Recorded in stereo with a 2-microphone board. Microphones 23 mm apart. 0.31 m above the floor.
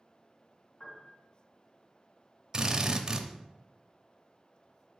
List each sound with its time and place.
0.8 s a piano: 65° left (ahead or behind), 3 m
2.5 s a drill: 30° right (ahead or behind), 0.7 m